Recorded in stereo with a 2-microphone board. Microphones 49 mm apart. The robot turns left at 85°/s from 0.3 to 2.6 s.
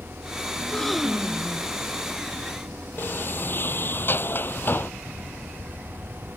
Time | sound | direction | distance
0.6 | a gasp | 30° left | ?
3.0 | a sliding door | 45° left (ahead or behind) | ?